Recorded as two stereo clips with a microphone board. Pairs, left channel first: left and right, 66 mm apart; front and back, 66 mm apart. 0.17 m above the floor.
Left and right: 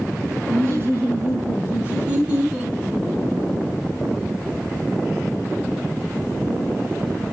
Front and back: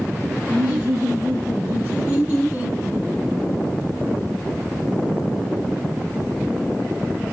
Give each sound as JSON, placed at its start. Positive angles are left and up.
{"t": 0.5, "sound": "laughter", "azimuth_deg": -125, "distance_m": 2.5}